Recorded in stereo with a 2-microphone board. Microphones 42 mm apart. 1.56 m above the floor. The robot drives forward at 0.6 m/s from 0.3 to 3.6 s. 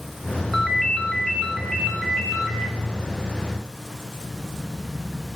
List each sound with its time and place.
0.5 s a ringtone: 5° right (ahead or behind), 0.7 m; by 2.7 s centre (ahead or behind), 1.9 m